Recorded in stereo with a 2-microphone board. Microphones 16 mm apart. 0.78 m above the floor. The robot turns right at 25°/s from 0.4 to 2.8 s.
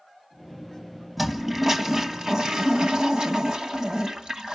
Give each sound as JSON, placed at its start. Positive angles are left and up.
{"t": 1.2, "sound": "a toilet flushing", "azimuth_deg": -165, "distance_m": 1.5}